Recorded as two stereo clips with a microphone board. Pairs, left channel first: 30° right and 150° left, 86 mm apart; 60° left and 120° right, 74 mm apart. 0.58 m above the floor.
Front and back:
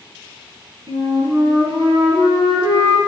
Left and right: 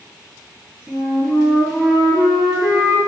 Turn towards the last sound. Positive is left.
turn(degrees=155)